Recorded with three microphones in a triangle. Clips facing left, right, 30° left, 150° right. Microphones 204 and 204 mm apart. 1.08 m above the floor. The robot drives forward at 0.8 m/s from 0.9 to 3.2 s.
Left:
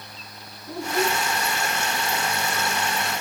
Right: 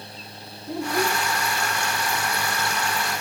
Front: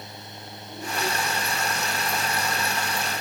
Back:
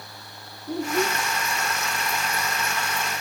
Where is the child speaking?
165° right, 1.4 m.